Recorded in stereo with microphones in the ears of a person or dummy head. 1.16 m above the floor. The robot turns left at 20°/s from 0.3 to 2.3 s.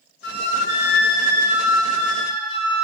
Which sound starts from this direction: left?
A flute, at 0.2 s.